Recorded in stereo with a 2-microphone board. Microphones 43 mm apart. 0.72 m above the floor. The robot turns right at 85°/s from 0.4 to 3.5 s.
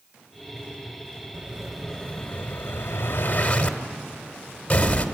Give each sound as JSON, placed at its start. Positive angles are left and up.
{"t": 1.3, "sound": "an explosion", "side_deg": -30, "distance_m": 1.4}